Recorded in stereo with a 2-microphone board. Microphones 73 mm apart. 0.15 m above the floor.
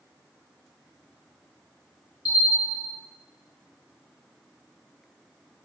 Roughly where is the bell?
Centre.